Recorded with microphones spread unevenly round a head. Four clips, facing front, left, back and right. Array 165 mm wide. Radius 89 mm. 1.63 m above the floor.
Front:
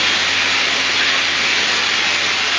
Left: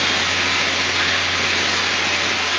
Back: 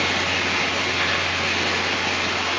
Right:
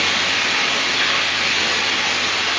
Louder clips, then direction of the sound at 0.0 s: Left 1 dB, front 2 dB; 75° left.